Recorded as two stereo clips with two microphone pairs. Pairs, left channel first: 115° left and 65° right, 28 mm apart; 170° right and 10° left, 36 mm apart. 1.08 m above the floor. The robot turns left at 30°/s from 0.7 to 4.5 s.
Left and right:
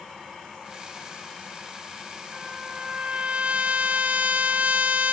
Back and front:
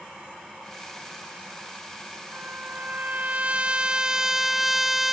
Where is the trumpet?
5° right; by 5.1 s 70° right.